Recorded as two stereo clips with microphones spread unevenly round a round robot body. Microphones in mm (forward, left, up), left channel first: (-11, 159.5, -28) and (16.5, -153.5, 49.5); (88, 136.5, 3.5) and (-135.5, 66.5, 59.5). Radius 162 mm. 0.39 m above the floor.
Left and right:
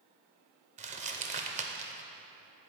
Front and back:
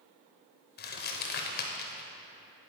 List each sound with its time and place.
0.8 s crumpling: 10° right, 0.6 m